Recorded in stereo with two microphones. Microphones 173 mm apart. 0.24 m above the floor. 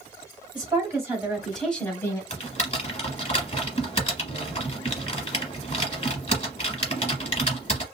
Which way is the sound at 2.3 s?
40° left (ahead or behind).